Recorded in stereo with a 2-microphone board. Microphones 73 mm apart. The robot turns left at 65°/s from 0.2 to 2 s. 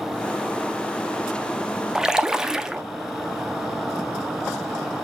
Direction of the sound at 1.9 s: 5° right (ahead or behind).